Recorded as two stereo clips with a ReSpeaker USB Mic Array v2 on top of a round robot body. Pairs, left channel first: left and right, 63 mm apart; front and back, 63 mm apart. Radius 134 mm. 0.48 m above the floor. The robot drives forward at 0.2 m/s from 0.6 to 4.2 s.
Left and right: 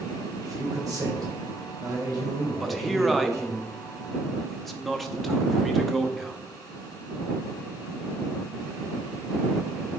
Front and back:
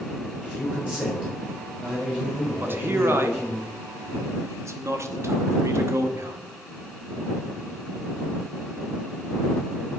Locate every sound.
0.4 s a man speaking: 110° right, 3.5 m; by 3.6 s 115° right, 3.5 m
2.6 s a man speaking: straight behind, 0.9 m